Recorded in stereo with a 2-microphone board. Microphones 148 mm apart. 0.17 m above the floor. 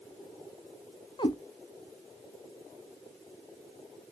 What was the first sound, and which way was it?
A cat meowing, 30° left (ahead or behind).